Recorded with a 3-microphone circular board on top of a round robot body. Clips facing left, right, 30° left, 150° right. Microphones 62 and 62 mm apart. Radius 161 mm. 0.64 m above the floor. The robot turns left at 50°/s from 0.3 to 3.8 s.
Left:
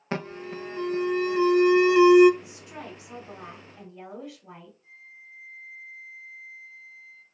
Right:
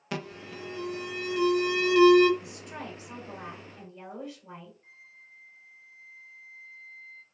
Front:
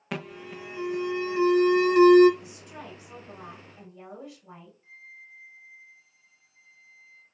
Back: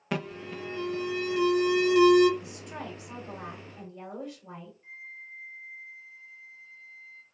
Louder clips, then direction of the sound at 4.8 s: Left 4 dB, back 4 dB; 105° right.